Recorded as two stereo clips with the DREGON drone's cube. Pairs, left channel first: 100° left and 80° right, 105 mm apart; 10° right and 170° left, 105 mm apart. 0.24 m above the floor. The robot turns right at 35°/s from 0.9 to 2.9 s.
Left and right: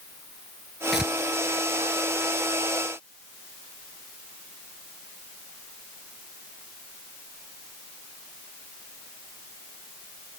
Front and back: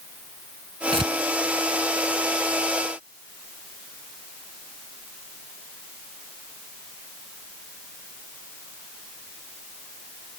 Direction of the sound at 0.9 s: 165° right.